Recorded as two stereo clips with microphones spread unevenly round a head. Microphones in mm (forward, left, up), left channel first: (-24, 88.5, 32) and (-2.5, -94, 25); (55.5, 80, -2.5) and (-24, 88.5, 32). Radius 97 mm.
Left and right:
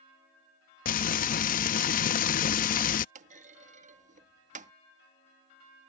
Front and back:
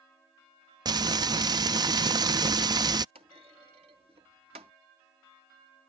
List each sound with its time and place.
0.8 s frying: 145° left
3.1 s a clunk: 135° right